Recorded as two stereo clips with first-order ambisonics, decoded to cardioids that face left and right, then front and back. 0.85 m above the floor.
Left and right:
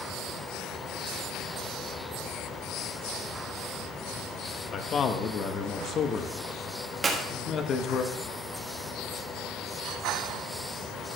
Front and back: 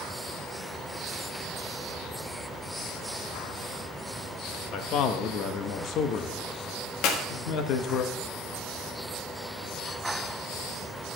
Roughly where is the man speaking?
Ahead left.